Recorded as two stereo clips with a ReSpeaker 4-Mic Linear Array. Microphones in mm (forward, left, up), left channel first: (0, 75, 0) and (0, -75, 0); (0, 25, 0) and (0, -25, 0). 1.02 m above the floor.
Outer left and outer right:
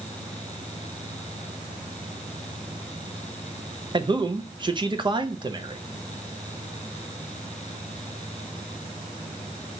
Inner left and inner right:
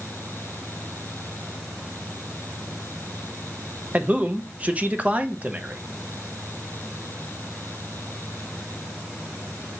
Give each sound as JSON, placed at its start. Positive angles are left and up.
{"t": 3.9, "sound": "a man speaking", "side_deg": -30, "distance_m": 0.6}